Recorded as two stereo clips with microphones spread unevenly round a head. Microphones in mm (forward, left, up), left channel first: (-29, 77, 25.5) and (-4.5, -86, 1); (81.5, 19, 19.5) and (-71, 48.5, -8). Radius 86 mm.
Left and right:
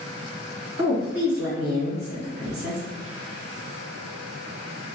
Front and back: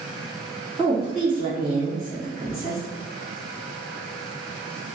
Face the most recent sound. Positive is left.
turn(degrees=-105)